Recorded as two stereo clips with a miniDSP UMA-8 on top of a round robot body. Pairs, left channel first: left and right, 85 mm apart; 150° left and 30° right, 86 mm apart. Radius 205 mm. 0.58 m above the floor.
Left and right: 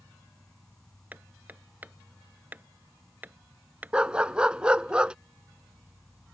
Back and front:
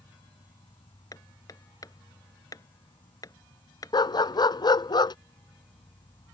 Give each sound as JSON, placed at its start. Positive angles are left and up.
{"t": 0.0, "sound": "an insect", "azimuth_deg": 175}
{"t": 1.1, "sound": "hammering", "azimuth_deg": -160}
{"t": 3.9, "sound": "a dog barking", "azimuth_deg": -170}